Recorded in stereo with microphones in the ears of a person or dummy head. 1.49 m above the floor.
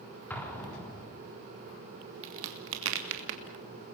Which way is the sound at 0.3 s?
10° left (ahead or behind).